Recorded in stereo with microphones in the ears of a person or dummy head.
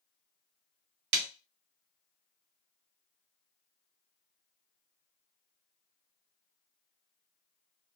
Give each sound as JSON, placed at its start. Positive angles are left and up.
{"t": 1.1, "sound": "a snare drum", "side_deg": -60, "distance_m": 0.6}